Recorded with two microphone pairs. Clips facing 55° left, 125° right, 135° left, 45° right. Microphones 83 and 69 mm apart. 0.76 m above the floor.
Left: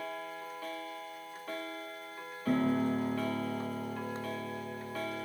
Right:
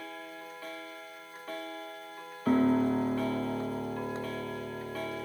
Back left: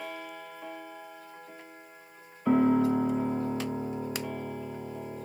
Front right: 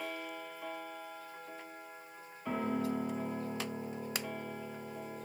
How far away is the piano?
About 0.6 m.